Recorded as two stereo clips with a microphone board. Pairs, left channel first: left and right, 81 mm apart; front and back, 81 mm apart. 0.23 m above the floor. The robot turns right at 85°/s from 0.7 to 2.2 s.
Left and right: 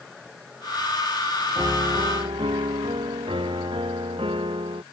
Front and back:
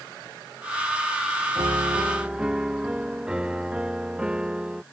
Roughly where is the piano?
Behind right.